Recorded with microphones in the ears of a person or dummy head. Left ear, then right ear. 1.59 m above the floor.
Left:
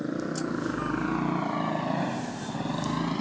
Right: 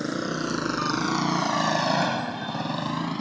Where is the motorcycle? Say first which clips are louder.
Right 3 dB; 70° right (ahead or behind); by 3.2 s 5° right (ahead or behind).